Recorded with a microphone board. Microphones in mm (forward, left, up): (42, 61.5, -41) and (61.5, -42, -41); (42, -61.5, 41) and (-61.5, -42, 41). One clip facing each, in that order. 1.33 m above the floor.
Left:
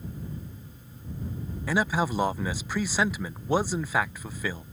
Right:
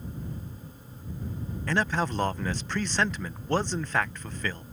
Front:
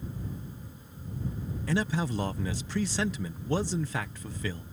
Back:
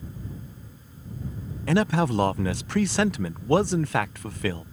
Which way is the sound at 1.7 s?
Straight behind.